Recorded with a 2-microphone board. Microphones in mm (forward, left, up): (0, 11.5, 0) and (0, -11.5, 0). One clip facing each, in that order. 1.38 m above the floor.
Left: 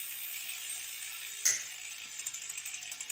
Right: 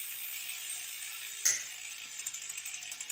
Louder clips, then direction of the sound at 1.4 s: Even; 35° right (ahead or behind).